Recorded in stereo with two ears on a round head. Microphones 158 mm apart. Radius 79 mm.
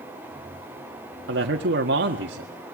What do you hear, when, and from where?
1.3 s a man speaking: 70° right (ahead or behind), 1.7 m